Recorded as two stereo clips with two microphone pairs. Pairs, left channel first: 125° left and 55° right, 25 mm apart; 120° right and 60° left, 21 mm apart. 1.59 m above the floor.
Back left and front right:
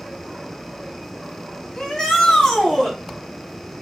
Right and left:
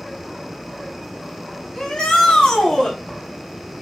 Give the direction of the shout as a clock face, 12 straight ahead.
6 o'clock.